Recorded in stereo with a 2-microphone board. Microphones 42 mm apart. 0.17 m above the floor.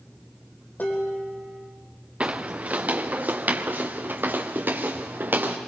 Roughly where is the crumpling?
I don't hear crumpling.